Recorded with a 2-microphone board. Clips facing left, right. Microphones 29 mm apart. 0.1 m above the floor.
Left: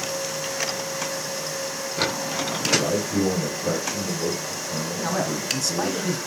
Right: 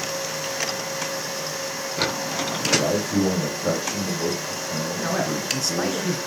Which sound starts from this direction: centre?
A man speaking, at 5.0 s.